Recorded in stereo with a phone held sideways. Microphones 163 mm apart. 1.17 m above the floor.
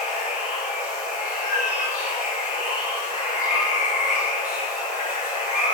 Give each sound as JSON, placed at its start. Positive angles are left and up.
{"t": 0.0, "sound": "running water", "side_deg": -15, "distance_m": 1.5}
{"t": 1.4, "sound": "a cat meowing", "side_deg": 50, "distance_m": 0.6}